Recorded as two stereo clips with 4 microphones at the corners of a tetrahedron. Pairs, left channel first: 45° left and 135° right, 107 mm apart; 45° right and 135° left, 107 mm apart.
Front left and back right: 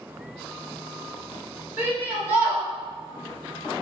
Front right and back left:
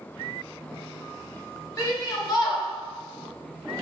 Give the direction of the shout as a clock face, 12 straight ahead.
2 o'clock.